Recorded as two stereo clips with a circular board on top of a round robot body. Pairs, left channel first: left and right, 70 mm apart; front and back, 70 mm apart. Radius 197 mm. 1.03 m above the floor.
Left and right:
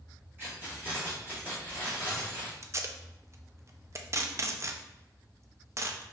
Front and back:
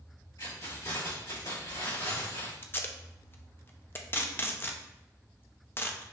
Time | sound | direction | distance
0.4 | keys jangling | 30° right | 2.5 m
2.6 | tape being pulled | 50° right | 0.7 m